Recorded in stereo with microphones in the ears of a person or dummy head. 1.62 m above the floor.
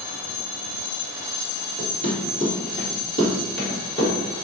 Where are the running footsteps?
35° right (ahead or behind), 1.9 m; by 4.2 s 15° left (ahead or behind), 1.6 m.